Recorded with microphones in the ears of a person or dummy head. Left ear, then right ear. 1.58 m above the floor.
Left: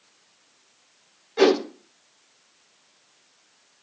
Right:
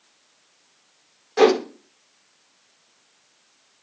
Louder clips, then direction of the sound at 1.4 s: Right 2 dB; 30° right (ahead or behind).